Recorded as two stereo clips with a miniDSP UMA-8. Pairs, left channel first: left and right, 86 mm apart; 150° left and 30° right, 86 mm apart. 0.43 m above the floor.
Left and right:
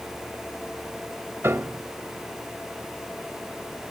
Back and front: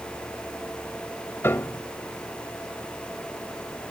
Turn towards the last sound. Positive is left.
turn(degrees=-150)